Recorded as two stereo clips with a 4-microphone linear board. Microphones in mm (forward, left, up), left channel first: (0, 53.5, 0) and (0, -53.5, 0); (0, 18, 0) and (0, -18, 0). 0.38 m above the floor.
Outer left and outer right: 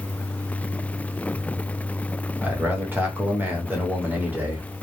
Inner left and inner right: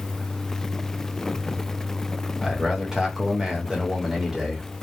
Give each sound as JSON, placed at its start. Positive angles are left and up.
{"t": 2.4, "sound": "a man speaking", "side_deg": -20, "distance_m": 0.8}